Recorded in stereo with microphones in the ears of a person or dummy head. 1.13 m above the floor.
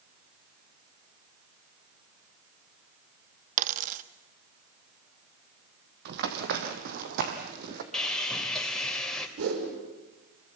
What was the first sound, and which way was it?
A dropped coin, 45° right (ahead or behind).